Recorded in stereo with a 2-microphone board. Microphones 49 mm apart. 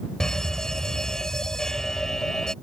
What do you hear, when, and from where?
0.2 s a fire alarm: 15° left (ahead or behind)